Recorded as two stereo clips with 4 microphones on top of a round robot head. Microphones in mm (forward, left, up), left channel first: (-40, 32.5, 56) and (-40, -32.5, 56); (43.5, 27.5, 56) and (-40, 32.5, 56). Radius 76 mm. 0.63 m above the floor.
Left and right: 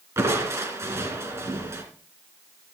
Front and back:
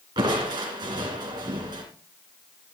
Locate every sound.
0.2 s crushing: 135° right, 3 m